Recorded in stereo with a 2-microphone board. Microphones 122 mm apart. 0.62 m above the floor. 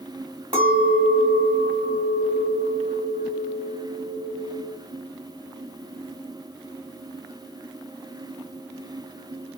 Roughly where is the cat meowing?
No cat meowing in this recording.